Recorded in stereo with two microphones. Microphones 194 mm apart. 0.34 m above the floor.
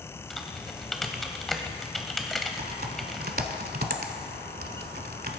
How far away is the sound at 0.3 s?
About 0.8 m.